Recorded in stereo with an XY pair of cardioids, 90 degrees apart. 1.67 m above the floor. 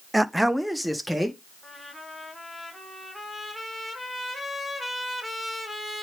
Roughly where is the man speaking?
Ahead.